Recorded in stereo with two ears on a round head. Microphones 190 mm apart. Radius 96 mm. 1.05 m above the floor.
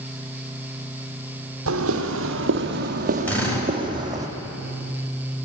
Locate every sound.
1.7 s footsteps: 65° right (ahead or behind), 2.5 m; by 4.3 s 15° right (ahead or behind), 3.5 m
3.3 s a drill: 10° left (ahead or behind), 6.5 m